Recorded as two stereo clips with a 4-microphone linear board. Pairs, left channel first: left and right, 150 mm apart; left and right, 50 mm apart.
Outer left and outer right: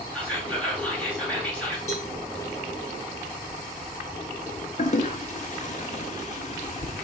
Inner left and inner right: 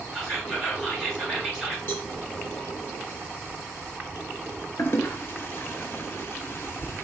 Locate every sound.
0.1 s whispering: 10° left (ahead or behind), 3 m
1.9 s a cowbell: 45° left (ahead or behind), 1.1 m
4.8 s a toilet flushing: 50° left (ahead or behind), 0.6 m